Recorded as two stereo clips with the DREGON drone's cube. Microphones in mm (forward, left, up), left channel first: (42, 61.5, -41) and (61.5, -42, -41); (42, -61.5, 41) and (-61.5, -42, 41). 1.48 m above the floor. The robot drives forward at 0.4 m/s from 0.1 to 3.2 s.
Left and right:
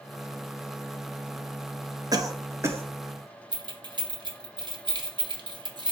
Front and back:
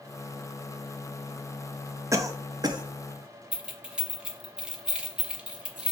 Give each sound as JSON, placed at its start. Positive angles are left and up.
{"t": 2.1, "sound": "a cough", "azimuth_deg": -130, "distance_m": 0.7}
{"t": 3.5, "sound": "keys jangling", "azimuth_deg": -110, "distance_m": 0.9}